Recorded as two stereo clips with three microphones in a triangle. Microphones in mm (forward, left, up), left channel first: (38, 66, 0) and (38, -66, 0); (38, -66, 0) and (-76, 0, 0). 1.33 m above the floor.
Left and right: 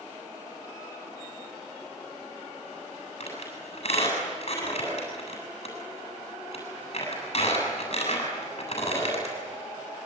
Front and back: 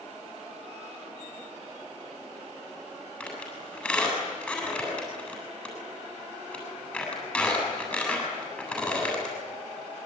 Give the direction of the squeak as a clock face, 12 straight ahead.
10 o'clock.